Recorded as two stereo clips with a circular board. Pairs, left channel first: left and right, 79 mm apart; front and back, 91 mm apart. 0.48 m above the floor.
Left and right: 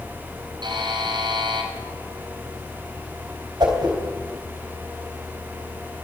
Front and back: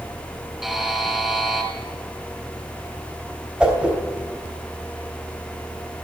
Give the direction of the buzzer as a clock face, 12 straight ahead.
3 o'clock.